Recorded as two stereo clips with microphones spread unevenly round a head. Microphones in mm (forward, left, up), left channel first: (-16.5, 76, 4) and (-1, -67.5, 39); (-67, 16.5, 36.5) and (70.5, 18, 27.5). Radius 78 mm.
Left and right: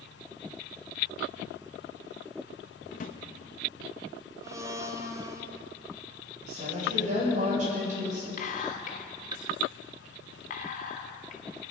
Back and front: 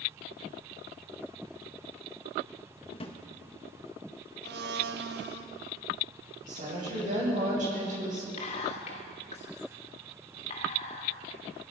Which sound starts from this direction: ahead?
A blender, at 4.4 s.